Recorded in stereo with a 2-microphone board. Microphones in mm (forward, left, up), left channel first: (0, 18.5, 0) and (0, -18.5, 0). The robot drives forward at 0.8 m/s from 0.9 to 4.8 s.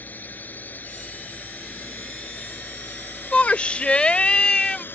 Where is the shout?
35° left (ahead or behind); by 4.8 s 20° left (ahead or behind).